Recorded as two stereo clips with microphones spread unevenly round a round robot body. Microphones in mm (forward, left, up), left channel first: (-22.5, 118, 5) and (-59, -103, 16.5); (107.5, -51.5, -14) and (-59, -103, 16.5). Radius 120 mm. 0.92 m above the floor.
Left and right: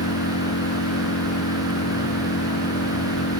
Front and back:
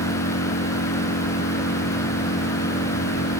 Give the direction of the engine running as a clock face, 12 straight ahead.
11 o'clock.